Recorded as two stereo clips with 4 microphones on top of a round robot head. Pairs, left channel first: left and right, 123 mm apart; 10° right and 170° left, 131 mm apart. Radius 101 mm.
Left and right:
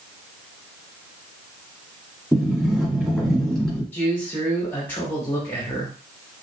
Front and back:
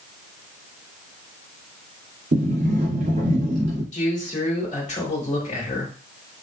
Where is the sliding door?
Straight behind, 2.5 m.